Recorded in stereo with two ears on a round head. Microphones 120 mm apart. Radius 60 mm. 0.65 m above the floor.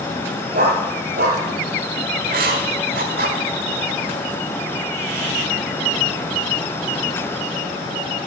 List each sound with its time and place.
0.5 s a dog barking: 65° right (ahead or behind), 4 m
2.2 s writing: 75° right (ahead or behind), 1.8 m